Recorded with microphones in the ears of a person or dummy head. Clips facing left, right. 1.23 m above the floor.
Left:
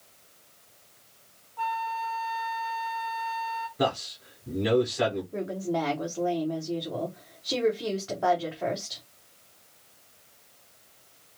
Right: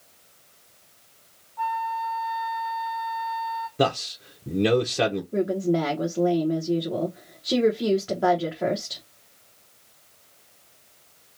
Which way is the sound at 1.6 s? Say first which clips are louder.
Right 3 dB; 35° left (ahead or behind).